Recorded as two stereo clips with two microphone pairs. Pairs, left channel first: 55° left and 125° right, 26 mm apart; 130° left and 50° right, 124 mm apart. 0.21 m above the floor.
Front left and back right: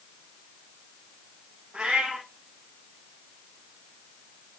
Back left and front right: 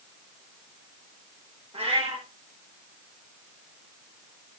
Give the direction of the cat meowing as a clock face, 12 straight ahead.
3 o'clock.